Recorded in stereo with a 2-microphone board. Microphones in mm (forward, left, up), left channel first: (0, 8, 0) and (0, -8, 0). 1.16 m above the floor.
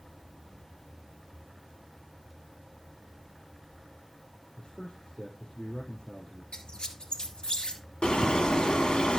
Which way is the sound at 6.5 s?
65° left (ahead or behind).